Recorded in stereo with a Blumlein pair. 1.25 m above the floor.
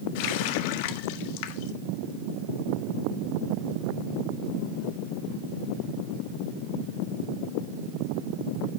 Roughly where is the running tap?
Ahead left.